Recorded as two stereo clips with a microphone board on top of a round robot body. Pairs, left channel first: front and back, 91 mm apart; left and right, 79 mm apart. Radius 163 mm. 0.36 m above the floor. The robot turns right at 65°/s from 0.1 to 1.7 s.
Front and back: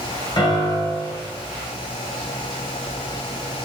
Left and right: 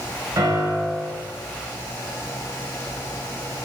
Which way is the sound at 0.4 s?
40° right.